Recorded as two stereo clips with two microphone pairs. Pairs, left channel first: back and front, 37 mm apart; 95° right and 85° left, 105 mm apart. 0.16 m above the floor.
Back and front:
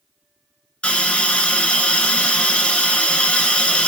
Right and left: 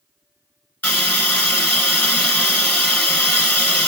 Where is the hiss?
155° right, 1.7 m.